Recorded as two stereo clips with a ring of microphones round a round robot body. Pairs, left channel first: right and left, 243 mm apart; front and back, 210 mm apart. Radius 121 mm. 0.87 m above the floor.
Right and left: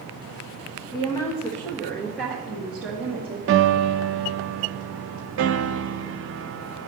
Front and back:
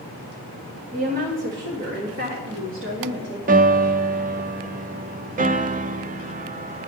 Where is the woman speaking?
150° right, 1.1 m; by 3.4 s 170° left, 2 m.